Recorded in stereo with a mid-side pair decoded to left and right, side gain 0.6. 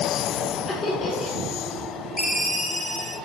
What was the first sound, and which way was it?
Laughter, 20° left.